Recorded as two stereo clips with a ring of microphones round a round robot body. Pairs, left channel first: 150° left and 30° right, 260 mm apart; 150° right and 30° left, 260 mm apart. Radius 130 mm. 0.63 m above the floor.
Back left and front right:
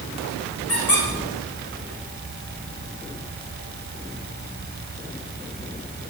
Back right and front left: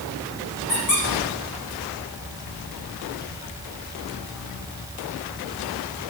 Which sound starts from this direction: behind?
A squeak, at 0.7 s.